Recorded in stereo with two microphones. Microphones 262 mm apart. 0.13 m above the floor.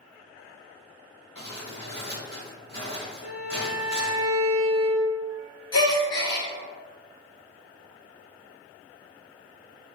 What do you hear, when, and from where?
1.4 s crumpling: 15° left (ahead or behind), 1.5 m
3.2 s a violin: 60° left (ahead or behind), 1.3 m
5.7 s a gasp: 65° left (ahead or behind), 0.6 m